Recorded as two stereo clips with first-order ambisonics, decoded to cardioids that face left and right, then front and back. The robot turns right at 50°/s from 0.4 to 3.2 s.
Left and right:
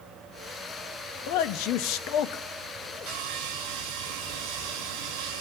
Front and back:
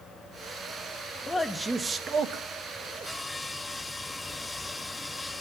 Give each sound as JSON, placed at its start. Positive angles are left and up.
{"t": 1.3, "sound": "a man speaking", "azimuth_deg": 75, "distance_m": 0.9}
{"t": 3.1, "sound": "sawing", "azimuth_deg": -90, "distance_m": 5.5}